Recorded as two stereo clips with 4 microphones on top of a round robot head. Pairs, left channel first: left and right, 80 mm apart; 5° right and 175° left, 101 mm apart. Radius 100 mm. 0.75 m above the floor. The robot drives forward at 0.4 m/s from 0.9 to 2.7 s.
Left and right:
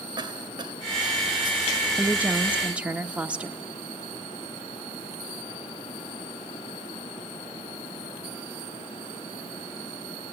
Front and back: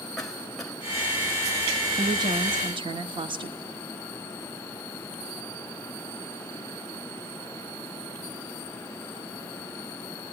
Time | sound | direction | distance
0.2 | a cough | 95° right | 2 m
1.9 | a woman speaking | 155° right | 0.8 m